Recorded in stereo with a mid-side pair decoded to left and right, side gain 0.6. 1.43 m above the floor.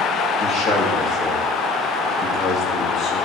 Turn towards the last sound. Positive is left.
turn(degrees=45)